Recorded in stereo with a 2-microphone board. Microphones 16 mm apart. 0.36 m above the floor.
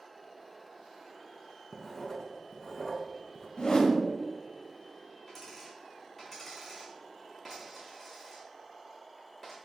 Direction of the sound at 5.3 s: 15° left (ahead or behind).